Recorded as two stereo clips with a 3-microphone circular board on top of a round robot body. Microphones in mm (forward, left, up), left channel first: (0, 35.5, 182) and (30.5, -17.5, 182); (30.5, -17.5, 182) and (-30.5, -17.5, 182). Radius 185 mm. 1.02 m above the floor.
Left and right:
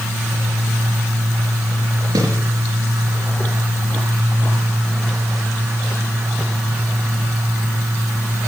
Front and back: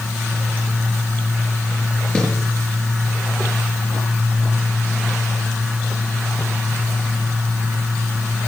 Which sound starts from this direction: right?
A snare drum, at 2.1 s.